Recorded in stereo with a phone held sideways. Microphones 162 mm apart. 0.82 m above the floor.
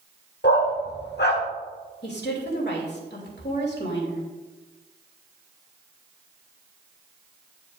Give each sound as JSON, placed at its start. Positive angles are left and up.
{"t": 0.4, "sound": "a dog barking", "side_deg": 75, "distance_m": 1.0}
{"t": 2.0, "sound": "a woman speaking", "side_deg": 80, "distance_m": 2.5}